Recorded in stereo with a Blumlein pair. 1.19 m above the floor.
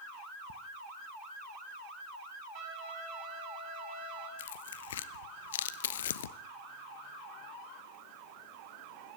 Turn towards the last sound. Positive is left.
turn(degrees=60)